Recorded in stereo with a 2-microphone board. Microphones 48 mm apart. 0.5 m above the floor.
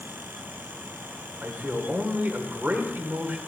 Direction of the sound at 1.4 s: 40° right (ahead or behind).